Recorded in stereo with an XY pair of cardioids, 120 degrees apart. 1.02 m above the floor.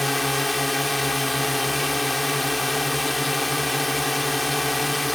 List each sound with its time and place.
0.0 s a drone: 5° left